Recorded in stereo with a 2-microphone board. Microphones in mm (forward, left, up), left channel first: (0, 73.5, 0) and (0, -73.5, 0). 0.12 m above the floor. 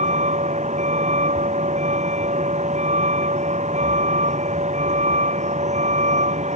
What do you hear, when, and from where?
0.0 s a vehicle: 55° right (ahead or behind)